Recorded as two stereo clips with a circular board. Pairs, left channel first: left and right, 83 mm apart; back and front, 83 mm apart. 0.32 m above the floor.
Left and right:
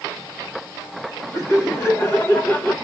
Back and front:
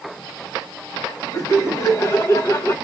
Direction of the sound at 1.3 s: 145° left.